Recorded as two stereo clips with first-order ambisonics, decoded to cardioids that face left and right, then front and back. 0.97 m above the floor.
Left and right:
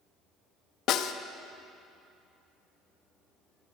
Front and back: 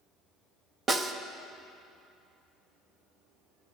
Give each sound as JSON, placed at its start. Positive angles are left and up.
{"t": 0.9, "sound": "a snare drum", "azimuth_deg": 115, "distance_m": 0.6}